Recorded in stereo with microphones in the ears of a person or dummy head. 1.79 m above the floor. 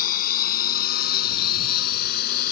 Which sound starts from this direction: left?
A lawn mower, at 0.0 s.